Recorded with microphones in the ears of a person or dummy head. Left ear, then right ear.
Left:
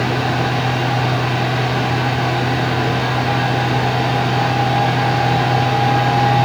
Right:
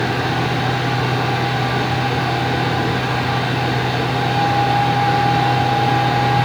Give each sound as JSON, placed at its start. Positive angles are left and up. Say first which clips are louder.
{"t": 0.0, "sound": "a fan", "louder": "left 1 dB", "side_deg": -5, "distance_m": 6.0}